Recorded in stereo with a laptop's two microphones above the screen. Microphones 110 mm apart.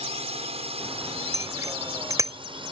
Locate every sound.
0.0 s a drone: 70° right (ahead or behind); by 2.7 s 50° right (ahead or behind)
1.3 s a bicycle bell: 30° right (ahead or behind)